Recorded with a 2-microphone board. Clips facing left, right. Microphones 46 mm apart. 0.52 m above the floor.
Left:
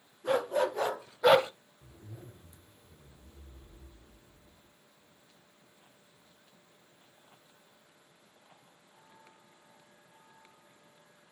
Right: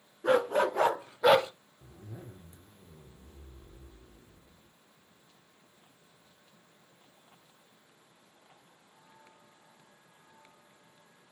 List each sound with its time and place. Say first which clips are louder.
0.2 s a dog barking: right 3 dB; 60° right (ahead or behind), 1.6 m; by 1.5 s 35° left (ahead or behind), 0.5 m
1.8 s a zipper: right 3 dB; 45° right (ahead or behind), 0.9 m